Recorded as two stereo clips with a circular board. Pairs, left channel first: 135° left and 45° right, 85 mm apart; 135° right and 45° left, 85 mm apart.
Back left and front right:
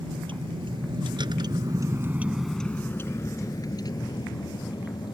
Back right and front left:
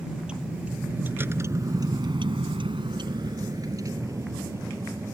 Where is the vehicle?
35° right; by 5.1 s 105° left.